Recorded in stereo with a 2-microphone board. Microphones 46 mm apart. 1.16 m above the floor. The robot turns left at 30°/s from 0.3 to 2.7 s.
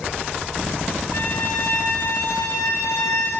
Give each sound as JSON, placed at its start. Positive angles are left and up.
{"t": 1.1, "sound": "a violin", "azimuth_deg": 130, "distance_m": 5.5}